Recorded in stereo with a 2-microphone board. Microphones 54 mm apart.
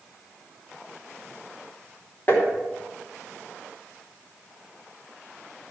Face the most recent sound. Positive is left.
turn(degrees=35)  # may be behind; listen again after turning